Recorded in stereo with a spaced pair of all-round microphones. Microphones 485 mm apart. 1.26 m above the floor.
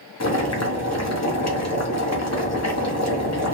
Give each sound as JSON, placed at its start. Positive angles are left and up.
{"t": 0.2, "sound": "boiling", "side_deg": 35, "distance_m": 0.7}